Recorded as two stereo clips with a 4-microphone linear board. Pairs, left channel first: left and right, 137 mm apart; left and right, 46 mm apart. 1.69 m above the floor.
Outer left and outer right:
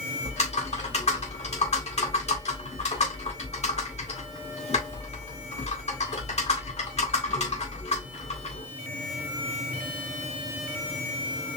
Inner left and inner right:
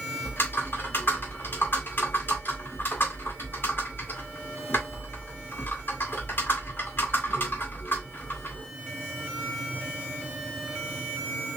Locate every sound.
0.2 s typing on a keyboard: 50° left (ahead or behind), 2 m